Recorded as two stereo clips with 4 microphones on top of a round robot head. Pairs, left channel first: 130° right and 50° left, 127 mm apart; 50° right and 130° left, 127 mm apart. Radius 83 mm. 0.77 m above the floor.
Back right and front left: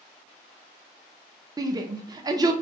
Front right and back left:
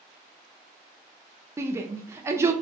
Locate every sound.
1.6 s a shout: 75° left, 0.7 m